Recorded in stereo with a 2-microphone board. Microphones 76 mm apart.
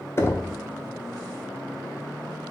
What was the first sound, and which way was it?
Knocking, 35° left (ahead or behind).